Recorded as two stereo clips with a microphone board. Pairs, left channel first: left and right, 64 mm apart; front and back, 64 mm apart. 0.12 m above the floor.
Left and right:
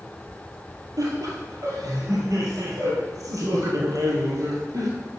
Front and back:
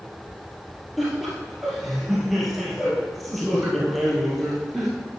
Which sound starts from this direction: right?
Laughter, at 1.0 s.